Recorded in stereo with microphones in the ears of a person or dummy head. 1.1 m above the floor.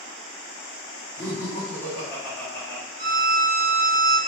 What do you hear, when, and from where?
1.2 s laughter: 15° left (ahead or behind), 1.4 m
3.0 s a violin: 70° right (ahead or behind), 1.4 m